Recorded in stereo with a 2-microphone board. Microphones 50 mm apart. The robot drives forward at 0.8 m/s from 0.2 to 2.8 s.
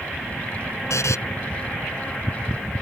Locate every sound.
0.9 s a buzzer: 75° left (ahead or behind); by 1.2 s 80° left